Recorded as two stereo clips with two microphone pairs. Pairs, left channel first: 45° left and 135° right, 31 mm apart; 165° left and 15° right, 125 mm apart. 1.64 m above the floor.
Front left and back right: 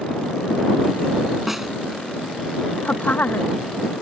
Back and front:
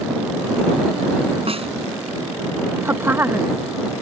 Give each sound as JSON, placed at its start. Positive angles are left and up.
{"t": 1.5, "sound": "a snare drum", "azimuth_deg": -55}
{"t": 2.8, "sound": "a woman speaking", "azimuth_deg": 55}